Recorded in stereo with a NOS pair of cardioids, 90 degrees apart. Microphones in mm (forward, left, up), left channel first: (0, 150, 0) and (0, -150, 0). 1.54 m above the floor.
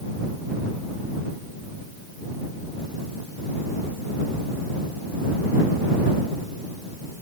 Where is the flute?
No flute in this recording.